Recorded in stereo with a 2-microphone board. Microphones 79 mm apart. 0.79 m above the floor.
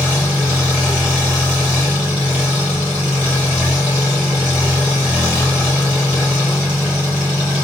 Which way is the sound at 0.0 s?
10° right (ahead or behind).